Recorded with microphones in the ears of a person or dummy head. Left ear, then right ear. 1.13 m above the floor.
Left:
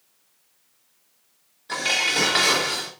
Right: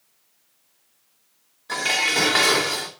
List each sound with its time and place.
1.7 s dishes clattering: 10° right (ahead or behind), 2.5 m